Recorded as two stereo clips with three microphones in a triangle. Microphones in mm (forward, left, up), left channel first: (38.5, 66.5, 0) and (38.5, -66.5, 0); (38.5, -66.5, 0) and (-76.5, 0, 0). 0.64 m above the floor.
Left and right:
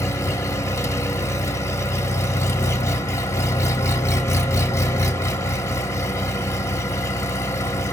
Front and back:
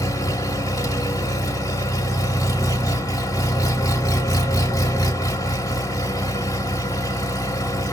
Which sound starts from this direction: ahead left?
An engine running, at 0.0 s.